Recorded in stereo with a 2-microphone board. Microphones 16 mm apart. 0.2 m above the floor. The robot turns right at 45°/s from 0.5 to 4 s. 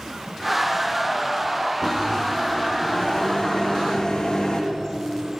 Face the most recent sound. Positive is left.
turn(degrees=125)